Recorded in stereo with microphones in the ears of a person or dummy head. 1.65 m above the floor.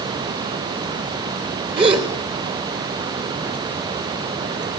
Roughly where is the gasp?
Right.